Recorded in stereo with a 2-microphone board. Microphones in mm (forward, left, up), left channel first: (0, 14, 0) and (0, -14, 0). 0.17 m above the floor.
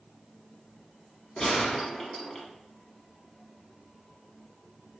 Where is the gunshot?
20° left (ahead or behind), 0.9 m.